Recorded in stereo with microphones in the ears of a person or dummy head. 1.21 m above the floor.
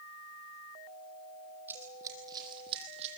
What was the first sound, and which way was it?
Running footsteps, 10° right (ahead or behind).